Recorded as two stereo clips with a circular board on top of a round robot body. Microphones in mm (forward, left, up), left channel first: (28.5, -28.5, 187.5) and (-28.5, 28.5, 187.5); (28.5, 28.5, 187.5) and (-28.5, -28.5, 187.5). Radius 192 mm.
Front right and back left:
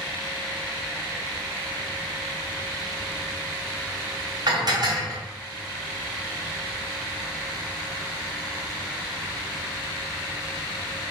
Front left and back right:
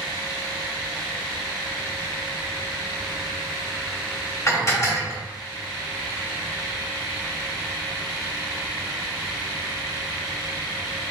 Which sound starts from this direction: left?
Dishes clattering, at 4.5 s.